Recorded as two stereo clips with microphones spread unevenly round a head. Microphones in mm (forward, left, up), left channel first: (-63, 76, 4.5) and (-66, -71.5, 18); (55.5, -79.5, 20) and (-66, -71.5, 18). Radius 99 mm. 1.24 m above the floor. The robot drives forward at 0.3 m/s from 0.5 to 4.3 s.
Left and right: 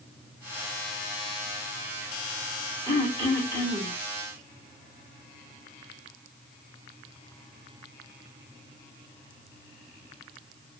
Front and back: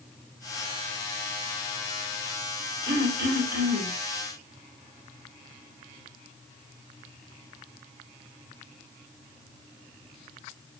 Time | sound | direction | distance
2.9 | throat clearing | 155° left | 3 m